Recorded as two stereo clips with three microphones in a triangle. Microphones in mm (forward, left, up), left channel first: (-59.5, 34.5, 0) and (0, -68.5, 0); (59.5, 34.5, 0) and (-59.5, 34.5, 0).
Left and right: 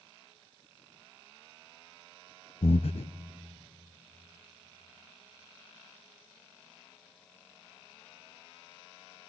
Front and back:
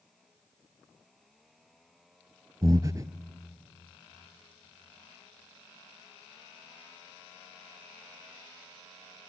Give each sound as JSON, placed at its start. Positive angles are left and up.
{"t": 2.6, "sound": "breathing", "azimuth_deg": 120, "distance_m": 0.6}